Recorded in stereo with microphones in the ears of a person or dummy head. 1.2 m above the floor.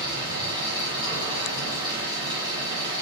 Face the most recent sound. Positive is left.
turn(degrees=-20)  # may be behind; listen again after turning